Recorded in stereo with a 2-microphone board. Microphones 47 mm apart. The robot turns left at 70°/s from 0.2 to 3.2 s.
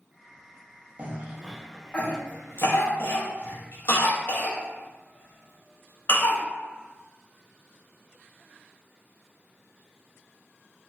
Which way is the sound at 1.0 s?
30° right (ahead or behind).